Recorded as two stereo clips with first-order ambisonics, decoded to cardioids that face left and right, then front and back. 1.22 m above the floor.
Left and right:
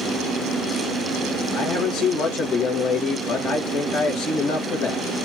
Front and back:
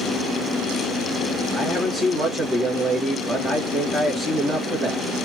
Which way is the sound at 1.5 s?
120° left.